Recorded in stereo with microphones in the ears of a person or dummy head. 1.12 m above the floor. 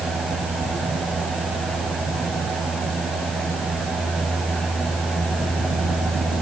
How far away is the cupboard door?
I don't hear a cupboard door.